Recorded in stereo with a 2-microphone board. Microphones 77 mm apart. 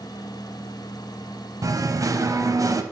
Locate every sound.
1.6 s singing: 50° right (ahead or behind), 0.8 m